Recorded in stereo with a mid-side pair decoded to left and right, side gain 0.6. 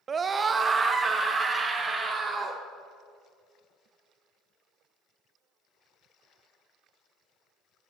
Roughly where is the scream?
Ahead right.